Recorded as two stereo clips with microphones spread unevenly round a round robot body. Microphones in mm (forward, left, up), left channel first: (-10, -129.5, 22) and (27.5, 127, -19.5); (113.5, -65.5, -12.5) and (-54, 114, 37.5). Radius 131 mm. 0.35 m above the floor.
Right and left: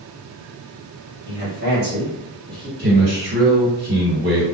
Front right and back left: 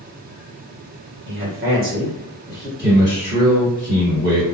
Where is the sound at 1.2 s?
105° left, 1.5 m; by 2.7 s 25° left, 1.3 m.